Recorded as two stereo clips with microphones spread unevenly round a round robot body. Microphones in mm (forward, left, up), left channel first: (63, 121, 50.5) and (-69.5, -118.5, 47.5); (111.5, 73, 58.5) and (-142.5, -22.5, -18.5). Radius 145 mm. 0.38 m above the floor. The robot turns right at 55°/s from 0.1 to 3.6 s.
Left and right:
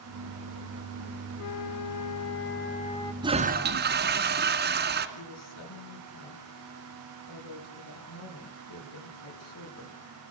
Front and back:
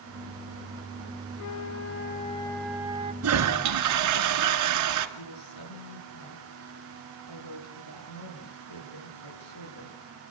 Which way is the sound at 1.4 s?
45° left.